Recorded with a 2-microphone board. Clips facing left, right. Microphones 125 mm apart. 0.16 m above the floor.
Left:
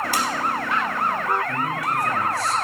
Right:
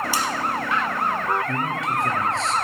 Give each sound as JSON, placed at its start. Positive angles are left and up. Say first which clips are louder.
{"t": 0.1, "sound": "tapping", "louder": "left 3 dB", "side_deg": 55, "distance_m": 2.5}
{"t": 1.5, "sound": "a man speaking", "louder": "even", "side_deg": -20, "distance_m": 2.5}